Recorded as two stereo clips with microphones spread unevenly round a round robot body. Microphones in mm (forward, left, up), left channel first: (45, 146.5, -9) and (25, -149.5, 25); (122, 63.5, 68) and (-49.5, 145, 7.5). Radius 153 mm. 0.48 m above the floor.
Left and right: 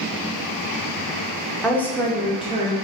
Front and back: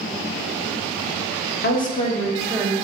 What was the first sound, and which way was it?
A woman speaking, 10° left.